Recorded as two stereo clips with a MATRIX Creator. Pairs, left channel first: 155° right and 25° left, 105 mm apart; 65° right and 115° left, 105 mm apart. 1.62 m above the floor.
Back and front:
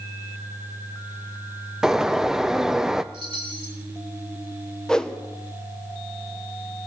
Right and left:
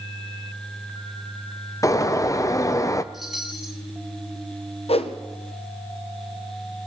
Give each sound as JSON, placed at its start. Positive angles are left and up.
{"t": 1.8, "sound": "a bird", "azimuth_deg": -55, "distance_m": 0.5}
{"t": 3.1, "sound": "a chime", "azimuth_deg": 25, "distance_m": 2.0}
{"t": 4.9, "sound": "a whoosh", "azimuth_deg": -75, "distance_m": 0.9}